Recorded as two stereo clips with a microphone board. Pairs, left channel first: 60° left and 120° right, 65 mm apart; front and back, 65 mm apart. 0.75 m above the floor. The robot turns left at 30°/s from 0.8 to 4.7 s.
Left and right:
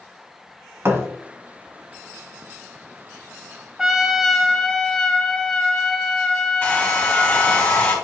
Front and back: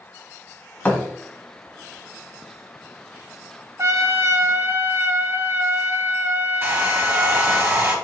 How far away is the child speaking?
I don't hear a child speaking.